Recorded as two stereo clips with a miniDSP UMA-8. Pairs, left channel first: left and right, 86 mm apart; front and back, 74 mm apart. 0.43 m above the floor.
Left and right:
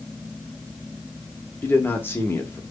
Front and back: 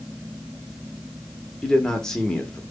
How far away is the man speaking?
About 0.8 m.